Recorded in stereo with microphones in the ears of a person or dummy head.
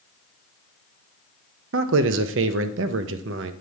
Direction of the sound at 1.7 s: 75° right (ahead or behind).